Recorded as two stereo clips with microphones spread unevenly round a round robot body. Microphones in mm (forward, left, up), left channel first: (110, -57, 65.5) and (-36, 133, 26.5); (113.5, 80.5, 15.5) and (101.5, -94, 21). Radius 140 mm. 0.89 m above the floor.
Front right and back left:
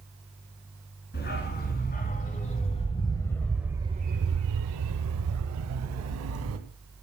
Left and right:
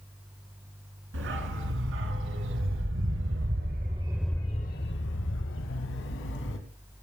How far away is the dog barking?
About 3.5 m.